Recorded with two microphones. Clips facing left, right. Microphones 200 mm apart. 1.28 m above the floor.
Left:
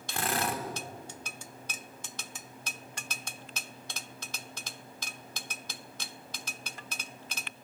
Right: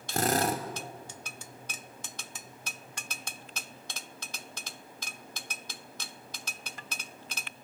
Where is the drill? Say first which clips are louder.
Right 5 dB; 40° right (ahead or behind), 2.5 m.